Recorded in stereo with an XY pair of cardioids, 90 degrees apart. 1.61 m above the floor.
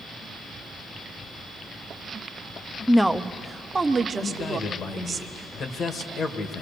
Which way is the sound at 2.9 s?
Straight ahead.